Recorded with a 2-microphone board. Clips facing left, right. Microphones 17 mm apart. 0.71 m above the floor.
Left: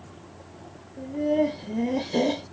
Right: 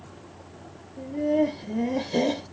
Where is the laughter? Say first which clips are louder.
Even; centre (ahead or behind), 1.5 m.